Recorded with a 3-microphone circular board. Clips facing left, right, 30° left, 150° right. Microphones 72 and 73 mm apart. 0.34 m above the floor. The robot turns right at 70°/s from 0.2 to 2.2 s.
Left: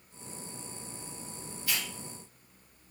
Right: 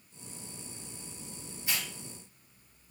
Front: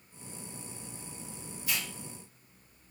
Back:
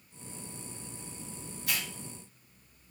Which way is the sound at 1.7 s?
155° right.